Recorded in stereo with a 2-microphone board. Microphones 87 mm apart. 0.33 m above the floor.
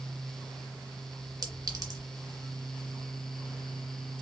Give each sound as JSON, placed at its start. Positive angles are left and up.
{"t": 1.4, "sound": "a clink", "side_deg": -45, "distance_m": 1.6}